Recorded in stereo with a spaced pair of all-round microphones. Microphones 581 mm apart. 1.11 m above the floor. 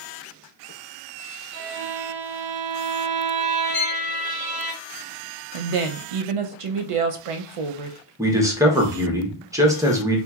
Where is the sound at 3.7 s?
40° left (ahead or behind), 0.9 m.